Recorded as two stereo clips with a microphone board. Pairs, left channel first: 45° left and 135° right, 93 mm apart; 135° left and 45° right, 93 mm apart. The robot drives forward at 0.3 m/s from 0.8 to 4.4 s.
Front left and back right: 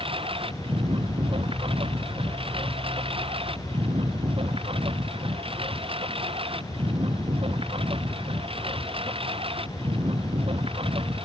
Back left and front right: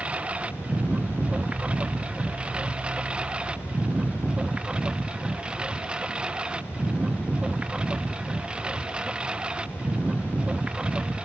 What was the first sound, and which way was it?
A lawn mower, 120° right.